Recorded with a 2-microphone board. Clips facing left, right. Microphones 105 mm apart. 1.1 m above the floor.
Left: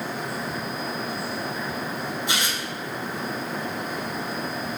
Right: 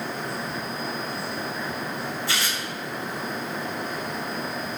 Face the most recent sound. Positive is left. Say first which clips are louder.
# left 1 dB
turn(degrees=20)  # may be behind; listen again after turning